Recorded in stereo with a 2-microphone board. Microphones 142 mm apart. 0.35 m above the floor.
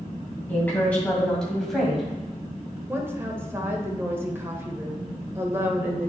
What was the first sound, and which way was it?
A woman speaking, 15° left (ahead or behind).